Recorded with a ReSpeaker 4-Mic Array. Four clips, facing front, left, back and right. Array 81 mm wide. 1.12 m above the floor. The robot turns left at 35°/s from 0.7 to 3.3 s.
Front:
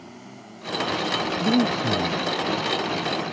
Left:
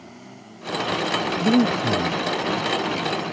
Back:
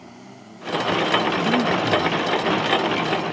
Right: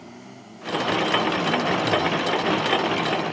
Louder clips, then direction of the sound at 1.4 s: Left 3 dB, back 1 dB; 80° left.